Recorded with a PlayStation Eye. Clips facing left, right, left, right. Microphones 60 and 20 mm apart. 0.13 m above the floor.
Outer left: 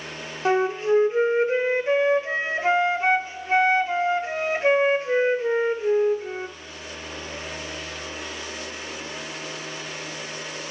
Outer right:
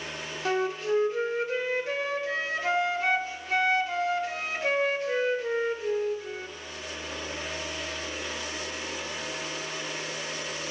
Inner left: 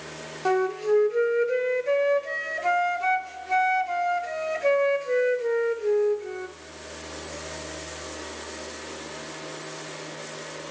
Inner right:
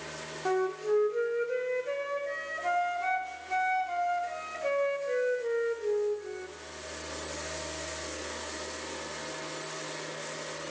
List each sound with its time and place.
0.5 s a flute: 30° left (ahead or behind), 0.5 m